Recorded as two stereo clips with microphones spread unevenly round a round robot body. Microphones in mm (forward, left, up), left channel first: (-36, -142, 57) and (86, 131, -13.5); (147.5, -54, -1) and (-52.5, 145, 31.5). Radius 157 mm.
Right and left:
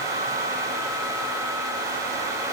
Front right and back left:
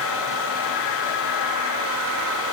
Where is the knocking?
I don't hear knocking.